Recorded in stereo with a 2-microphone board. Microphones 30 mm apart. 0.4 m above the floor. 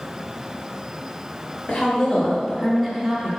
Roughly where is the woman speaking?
Left.